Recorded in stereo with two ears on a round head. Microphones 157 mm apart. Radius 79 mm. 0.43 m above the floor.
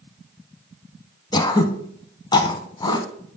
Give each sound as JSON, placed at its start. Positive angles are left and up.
{"t": 1.3, "sound": "throat clearing", "side_deg": 25, "distance_m": 0.7}